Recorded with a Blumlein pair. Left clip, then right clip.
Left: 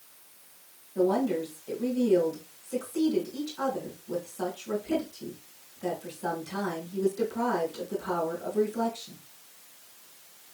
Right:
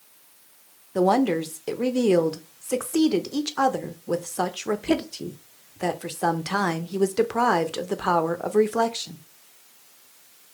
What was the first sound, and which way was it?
A woman speaking, 45° right.